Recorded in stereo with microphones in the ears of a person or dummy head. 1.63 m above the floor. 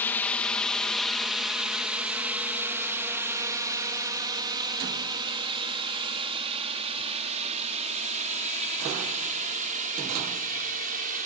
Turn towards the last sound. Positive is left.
turn(degrees=-40)  # may be behind; listen again after turning